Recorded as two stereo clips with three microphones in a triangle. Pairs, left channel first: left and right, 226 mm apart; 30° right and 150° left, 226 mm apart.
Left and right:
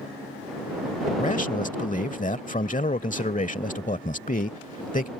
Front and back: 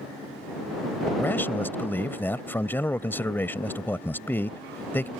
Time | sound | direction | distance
1.2 | a man speaking | 45° left | ?